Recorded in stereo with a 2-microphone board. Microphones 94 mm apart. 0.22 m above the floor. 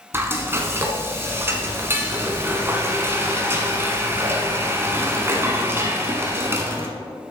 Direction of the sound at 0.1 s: 25° right (ahead or behind).